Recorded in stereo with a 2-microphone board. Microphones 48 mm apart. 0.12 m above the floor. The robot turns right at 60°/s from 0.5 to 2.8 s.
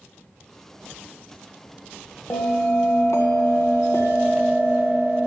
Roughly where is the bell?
Ahead left.